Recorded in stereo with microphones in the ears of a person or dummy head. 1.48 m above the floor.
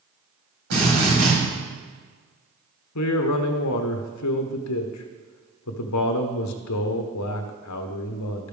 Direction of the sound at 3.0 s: 80° left.